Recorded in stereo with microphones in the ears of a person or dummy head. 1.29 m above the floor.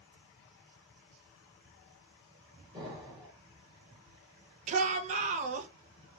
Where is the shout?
35° right (ahead or behind), 0.6 m.